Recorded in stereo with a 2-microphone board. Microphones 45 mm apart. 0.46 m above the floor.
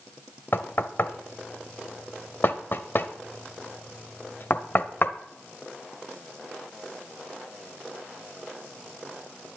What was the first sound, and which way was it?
Knocking, 50° left (ahead or behind).